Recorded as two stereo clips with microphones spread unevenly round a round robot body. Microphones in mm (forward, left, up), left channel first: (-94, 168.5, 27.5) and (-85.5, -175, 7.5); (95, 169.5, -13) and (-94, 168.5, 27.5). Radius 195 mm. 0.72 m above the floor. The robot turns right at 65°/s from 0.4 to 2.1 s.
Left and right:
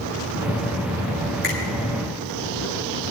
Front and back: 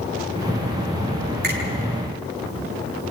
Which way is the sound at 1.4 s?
155° left.